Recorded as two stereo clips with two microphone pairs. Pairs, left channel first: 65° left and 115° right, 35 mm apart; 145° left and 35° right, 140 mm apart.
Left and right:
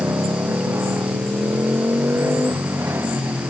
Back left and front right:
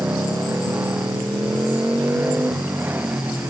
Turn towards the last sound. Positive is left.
turn(degrees=-115)